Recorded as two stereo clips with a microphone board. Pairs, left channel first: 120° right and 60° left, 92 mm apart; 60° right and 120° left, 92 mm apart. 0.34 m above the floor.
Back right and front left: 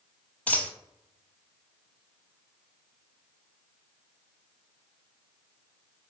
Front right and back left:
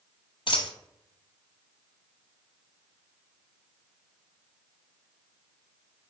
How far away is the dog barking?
No dog barking in this recording.